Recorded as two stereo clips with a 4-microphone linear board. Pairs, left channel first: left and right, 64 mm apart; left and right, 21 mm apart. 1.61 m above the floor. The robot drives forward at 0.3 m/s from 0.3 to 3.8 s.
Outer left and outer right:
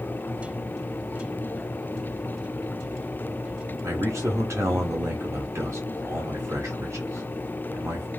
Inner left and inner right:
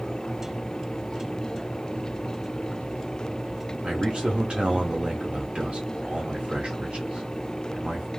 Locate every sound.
3.8 s a man speaking: 50° right (ahead or behind), 0.8 m